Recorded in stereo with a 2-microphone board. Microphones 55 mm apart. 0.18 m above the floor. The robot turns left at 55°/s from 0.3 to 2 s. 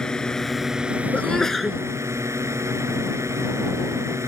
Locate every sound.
0.0 s a drone: 15° left; by 4.3 s 80° right
1.1 s a sneeze: 30° left; by 1.8 s 10° right